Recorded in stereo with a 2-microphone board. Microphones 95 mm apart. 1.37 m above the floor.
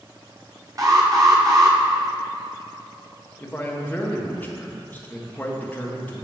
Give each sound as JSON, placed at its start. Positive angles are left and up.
{"t": 0.8, "sound": "an alarm", "side_deg": -40, "distance_m": 0.9}
{"t": 3.4, "sound": "a man speaking", "side_deg": 20, "distance_m": 0.9}